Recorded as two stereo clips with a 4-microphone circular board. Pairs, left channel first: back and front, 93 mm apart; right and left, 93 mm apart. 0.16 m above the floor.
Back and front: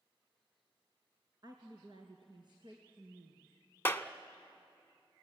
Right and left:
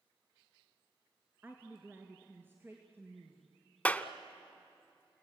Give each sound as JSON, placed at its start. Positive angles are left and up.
{"t": 1.4, "sound": "a woman speaking", "azimuth_deg": 25, "distance_m": 1.8}
{"t": 3.9, "sound": "a clap", "azimuth_deg": -150, "distance_m": 0.8}